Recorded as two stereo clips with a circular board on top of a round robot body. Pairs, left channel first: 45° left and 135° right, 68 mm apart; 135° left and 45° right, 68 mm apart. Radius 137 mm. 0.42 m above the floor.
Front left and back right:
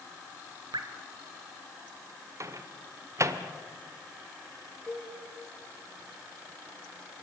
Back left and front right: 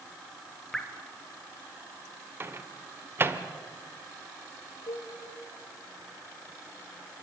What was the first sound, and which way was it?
Dripping, 140° right.